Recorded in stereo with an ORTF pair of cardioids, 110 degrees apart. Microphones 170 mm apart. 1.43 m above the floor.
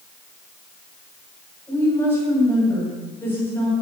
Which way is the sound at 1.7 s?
15° left.